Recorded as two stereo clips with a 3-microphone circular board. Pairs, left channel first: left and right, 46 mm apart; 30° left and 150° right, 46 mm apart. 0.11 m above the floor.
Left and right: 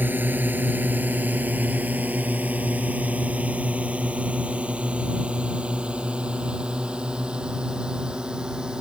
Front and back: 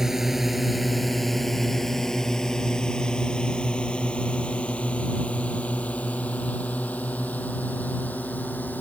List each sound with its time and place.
0.0 s a drone: 70° right; by 8.8 s 20° right